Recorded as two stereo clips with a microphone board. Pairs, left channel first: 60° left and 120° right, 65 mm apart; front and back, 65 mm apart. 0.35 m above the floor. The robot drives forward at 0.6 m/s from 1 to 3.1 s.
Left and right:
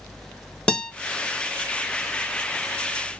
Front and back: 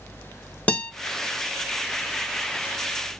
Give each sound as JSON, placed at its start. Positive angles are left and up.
{"t": 0.7, "sound": "a guitar", "azimuth_deg": 10, "distance_m": 0.9}